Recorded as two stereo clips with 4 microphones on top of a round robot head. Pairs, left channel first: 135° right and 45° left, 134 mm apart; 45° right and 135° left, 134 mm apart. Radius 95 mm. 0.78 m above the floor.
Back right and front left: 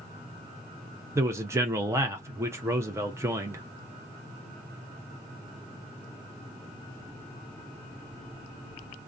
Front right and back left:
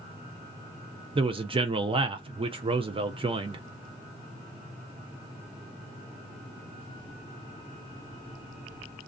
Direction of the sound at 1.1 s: 105° left.